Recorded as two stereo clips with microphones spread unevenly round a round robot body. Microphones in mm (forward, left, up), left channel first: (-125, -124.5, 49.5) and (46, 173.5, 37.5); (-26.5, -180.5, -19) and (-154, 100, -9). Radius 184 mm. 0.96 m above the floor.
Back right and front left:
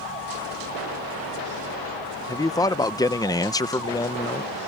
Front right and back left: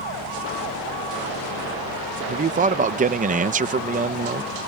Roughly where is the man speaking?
Behind.